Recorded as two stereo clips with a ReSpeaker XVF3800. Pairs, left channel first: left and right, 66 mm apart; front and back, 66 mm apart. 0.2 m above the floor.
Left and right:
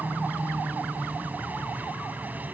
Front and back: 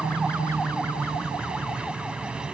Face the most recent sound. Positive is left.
turn(degrees=-120)